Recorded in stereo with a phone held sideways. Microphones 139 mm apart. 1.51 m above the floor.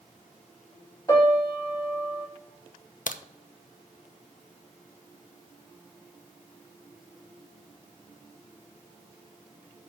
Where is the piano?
20° left (ahead or behind), 5 m.